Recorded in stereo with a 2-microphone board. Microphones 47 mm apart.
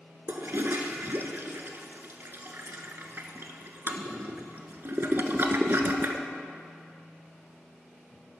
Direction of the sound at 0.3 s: 60° right (ahead or behind).